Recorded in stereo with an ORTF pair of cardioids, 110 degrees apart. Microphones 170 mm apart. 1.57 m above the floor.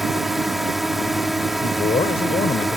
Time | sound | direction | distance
0.0 | a drone | straight ahead | ?
1.6 | a man speaking | 35° left | ?